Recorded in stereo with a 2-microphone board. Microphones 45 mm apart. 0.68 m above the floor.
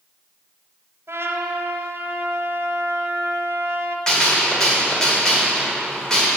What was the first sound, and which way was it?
A trumpet, 75° right (ahead or behind).